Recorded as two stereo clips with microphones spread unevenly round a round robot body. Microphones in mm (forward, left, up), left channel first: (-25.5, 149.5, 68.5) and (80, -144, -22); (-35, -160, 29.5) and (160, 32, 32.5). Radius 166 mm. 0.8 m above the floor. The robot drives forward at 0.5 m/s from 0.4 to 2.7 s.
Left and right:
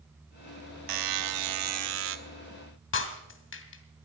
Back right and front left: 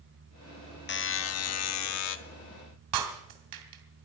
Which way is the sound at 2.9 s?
55° left.